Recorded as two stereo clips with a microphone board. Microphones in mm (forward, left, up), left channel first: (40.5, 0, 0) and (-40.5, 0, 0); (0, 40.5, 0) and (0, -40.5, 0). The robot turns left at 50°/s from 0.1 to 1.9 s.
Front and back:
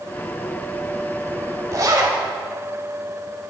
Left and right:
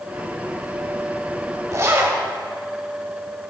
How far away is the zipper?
About 1.4 m.